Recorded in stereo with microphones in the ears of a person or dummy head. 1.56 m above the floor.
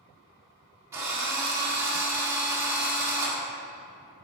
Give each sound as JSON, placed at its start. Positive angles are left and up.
{"t": 0.9, "sound": "a drill", "side_deg": -15, "distance_m": 1.5}